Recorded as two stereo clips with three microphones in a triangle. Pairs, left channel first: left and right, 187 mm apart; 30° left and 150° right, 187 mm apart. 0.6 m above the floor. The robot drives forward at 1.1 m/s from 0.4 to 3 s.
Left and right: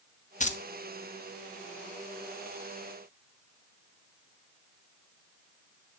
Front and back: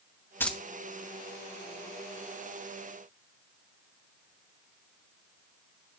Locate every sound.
0.4 s keys jangling: 100° left, 0.6 m; by 0.6 s 125° left, 0.6 m